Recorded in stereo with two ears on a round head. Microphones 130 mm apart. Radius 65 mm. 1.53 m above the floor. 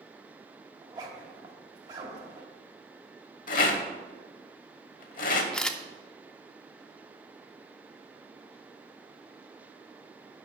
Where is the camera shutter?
5° left (ahead or behind), 0.6 m.